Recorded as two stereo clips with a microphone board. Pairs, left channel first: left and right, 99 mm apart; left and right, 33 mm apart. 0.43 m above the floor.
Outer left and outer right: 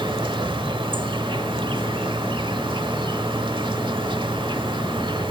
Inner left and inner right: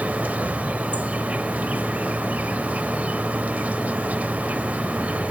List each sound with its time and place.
0.0 s an insect: 55° right (ahead or behind), 0.9 m